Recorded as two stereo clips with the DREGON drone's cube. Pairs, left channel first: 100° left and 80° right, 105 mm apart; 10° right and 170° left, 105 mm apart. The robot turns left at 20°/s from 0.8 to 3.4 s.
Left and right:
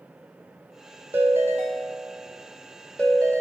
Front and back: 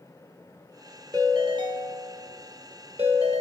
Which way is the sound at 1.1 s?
140° right.